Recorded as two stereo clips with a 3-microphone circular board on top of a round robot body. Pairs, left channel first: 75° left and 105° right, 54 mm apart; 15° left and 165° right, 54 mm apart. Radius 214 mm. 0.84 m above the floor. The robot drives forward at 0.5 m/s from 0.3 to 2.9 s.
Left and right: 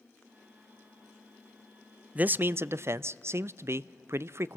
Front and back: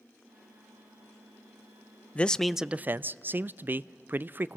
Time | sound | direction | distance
2.1 | a man speaking | 45° right | 0.5 m